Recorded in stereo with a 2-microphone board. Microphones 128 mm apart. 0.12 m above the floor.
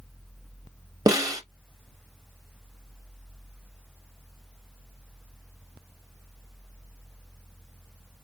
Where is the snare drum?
30° right (ahead or behind), 1.0 m.